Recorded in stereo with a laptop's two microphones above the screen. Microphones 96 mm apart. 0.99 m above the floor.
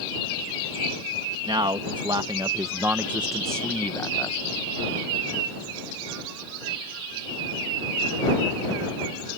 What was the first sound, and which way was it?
A man speaking, 60° right (ahead or behind).